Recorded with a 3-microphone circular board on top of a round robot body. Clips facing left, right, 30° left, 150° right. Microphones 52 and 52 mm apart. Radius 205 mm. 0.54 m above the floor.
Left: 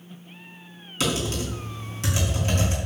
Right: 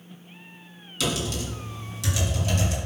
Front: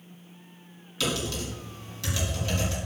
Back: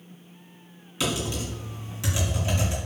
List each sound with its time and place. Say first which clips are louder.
1.0 s typing on a keyboard: left 2 dB, back 1 dB; 140° left, 5 m